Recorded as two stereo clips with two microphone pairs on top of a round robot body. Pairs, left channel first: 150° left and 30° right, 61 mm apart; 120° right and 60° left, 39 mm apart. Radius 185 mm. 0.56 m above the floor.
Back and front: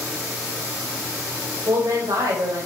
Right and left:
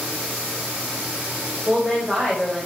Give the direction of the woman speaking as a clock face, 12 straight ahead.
1 o'clock.